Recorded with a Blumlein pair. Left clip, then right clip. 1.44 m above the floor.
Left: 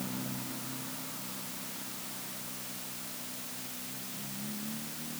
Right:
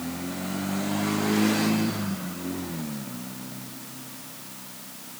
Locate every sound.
Only background noise.